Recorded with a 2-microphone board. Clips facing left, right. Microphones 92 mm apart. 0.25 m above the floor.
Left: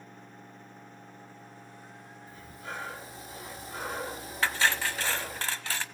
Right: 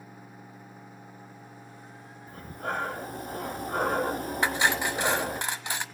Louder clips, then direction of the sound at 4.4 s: Right 1 dB; 20° right (ahead or behind).